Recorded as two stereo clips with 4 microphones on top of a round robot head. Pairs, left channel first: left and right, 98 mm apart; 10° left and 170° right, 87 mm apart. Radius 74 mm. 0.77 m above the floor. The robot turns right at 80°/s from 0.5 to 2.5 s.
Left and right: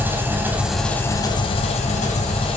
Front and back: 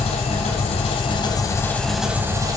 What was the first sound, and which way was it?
An engine running, 20° right.